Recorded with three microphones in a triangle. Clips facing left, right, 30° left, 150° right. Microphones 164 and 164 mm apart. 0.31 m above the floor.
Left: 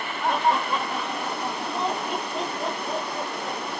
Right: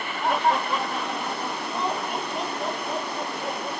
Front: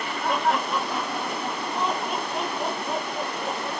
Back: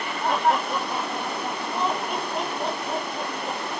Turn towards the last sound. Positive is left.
turn(degrees=70)